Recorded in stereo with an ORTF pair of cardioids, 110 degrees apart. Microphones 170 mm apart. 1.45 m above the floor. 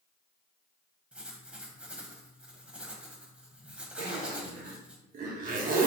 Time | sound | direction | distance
1.1 | writing | 5° right | 1.2 m
4.0 | a zipper | 60° right | 1.3 m